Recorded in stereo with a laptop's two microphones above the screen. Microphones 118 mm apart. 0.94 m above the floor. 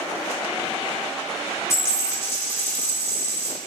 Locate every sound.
1.7 s a dropped coin: 25° left (ahead or behind), 0.9 m